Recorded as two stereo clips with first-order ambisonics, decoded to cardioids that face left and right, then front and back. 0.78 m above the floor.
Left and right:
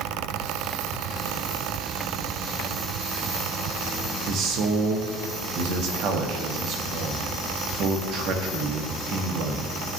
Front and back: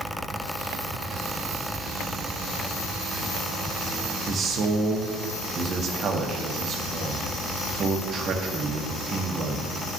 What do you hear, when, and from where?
4.3 s a man speaking: 120° right, 0.9 m